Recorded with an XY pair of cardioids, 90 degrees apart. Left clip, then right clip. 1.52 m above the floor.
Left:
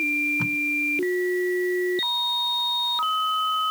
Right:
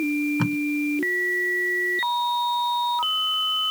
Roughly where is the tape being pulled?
Ahead right.